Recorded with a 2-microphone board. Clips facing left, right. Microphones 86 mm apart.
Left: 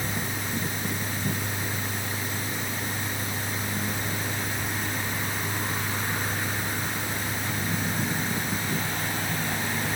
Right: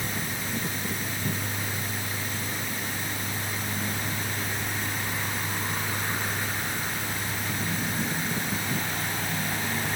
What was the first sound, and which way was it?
Only background noise.